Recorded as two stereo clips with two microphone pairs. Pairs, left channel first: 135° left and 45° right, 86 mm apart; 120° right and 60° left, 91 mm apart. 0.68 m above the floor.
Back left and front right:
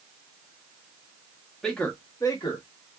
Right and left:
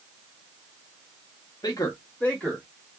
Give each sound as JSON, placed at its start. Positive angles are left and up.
{"t": 1.6, "sound": "a man speaking", "azimuth_deg": -140, "distance_m": 1.1}